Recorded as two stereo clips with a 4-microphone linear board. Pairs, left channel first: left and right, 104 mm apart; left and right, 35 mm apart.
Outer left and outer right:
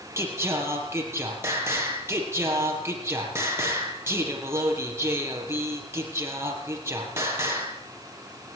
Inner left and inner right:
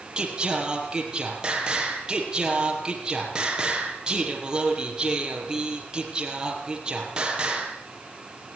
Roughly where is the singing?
Right.